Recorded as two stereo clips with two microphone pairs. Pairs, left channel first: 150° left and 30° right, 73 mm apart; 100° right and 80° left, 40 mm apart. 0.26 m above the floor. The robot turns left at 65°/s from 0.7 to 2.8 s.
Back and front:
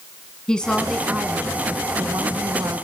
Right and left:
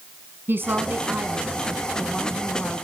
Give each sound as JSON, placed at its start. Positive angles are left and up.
{"t": 0.5, "sound": "a woman speaking", "azimuth_deg": 70, "distance_m": 2.5}